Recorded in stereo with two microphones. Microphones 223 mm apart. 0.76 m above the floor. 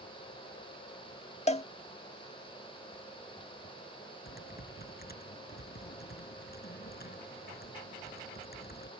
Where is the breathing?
No breathing in this recording.